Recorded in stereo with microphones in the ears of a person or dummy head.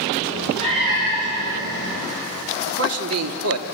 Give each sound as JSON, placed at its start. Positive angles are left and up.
{"t": 0.2, "sound": "a cat meowing", "side_deg": -25, "distance_m": 8.5}
{"t": 2.7, "sound": "a man speaking", "side_deg": -75, "distance_m": 2.5}